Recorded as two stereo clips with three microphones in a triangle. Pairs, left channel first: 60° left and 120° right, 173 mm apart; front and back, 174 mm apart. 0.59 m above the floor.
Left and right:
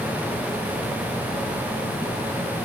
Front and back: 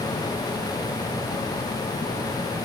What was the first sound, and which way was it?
Only background noise.